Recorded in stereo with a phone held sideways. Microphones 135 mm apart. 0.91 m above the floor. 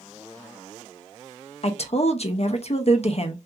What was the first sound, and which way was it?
A woman speaking, 50° left (ahead or behind).